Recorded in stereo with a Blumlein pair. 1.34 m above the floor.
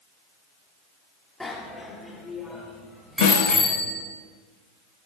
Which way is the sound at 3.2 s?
55° left.